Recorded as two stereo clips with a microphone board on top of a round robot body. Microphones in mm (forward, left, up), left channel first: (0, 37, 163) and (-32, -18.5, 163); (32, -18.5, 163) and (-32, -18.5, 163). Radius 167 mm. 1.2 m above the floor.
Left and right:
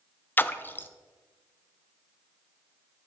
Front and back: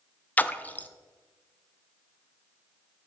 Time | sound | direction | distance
0.4 | a splash | 40° left | 0.5 m